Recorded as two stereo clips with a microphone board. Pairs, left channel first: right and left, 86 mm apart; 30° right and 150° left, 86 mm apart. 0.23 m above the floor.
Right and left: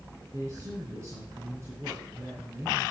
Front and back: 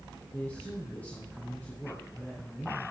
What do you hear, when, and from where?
0.3 s a man speaking: 40° left, 2.5 m